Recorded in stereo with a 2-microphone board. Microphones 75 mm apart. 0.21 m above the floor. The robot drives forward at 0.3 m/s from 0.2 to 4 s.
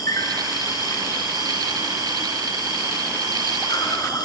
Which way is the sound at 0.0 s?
50° left (ahead or behind).